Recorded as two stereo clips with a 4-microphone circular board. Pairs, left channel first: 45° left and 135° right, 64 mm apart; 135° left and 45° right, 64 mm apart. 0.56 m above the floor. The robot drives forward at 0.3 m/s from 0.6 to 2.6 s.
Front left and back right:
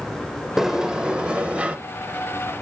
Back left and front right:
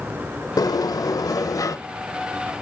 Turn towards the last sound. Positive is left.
turn(degrees=160)